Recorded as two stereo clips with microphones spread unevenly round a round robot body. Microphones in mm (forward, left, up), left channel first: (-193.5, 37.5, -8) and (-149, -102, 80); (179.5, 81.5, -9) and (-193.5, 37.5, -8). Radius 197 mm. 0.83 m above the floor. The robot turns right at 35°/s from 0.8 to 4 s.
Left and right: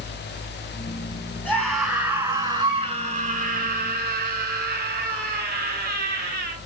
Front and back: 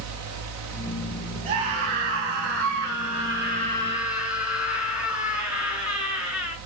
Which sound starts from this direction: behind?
A scream, at 1.4 s.